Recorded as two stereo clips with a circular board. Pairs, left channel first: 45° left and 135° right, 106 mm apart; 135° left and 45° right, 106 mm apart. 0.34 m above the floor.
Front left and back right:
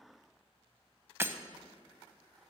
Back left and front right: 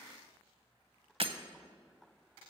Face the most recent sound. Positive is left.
turn(degrees=-70)